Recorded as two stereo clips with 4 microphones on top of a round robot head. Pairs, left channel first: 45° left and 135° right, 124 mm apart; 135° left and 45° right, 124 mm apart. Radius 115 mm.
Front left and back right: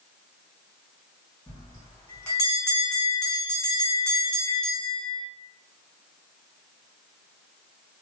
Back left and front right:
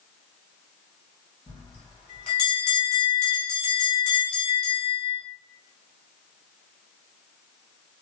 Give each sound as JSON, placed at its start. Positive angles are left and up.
{"t": 1.5, "sound": "a bell", "azimuth_deg": 105, "distance_m": 1.5}